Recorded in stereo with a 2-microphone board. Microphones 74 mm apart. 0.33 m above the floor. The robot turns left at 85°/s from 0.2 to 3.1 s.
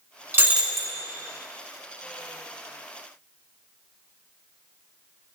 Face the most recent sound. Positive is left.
turn(degrees=-20)